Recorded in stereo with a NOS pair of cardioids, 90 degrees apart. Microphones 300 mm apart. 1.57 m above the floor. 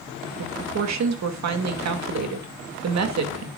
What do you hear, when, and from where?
0.4 s a woman speaking: 60° right, 2 m